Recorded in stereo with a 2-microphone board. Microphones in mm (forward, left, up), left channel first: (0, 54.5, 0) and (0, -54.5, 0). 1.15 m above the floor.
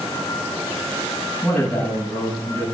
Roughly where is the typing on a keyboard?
I don't hear typing on a keyboard.